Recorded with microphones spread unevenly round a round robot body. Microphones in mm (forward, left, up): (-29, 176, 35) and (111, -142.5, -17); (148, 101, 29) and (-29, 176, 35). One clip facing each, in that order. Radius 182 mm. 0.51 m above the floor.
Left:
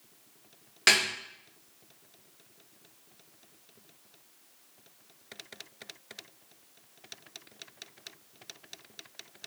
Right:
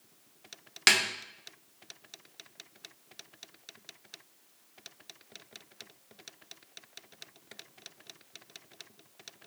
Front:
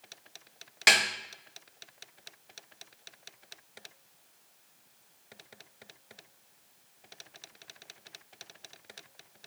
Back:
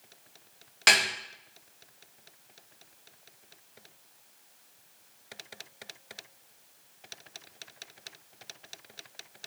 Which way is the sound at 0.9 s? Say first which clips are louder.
Left 2 dB, back 1 dB; 90° right.